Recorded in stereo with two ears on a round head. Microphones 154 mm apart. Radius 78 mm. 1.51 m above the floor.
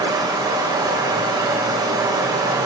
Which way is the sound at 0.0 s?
25° right (ahead or behind).